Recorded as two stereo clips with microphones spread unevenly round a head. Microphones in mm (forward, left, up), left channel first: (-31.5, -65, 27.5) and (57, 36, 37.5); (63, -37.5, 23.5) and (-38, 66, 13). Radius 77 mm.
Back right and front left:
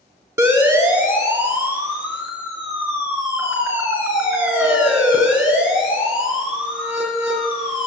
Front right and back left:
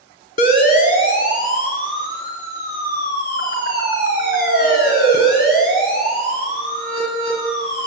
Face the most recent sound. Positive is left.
turn(degrees=-35)